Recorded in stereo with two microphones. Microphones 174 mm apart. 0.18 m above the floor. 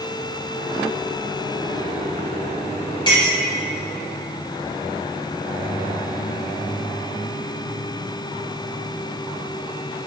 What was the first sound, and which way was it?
A clink, 25° left (ahead or behind).